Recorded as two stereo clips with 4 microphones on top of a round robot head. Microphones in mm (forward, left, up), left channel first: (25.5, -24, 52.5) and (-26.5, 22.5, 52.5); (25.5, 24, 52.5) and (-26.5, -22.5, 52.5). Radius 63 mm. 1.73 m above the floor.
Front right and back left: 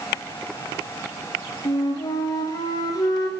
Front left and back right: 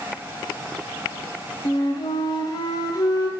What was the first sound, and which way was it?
A flute, straight ahead.